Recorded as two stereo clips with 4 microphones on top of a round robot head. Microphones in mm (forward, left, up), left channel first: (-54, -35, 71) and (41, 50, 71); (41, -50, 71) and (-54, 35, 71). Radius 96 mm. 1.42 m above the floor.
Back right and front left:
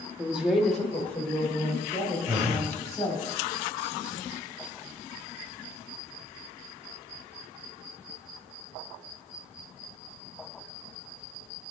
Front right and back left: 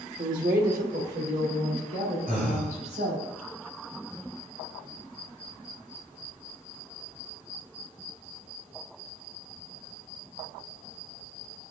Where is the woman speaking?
115° left, 1.4 m; by 3.2 s 160° left, 5.5 m.